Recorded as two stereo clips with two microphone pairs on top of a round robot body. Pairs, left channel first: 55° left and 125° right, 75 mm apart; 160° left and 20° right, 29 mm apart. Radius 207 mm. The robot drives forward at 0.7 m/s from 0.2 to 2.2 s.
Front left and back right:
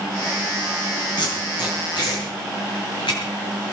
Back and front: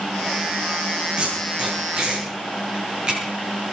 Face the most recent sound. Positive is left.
turn(degrees=40)